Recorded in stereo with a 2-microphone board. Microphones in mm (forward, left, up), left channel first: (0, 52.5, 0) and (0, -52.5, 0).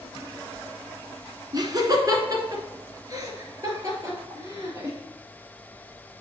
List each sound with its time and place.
1.5 s laughter: 40° right (ahead or behind), 1.6 m; by 5.0 s 30° right (ahead or behind), 3.5 m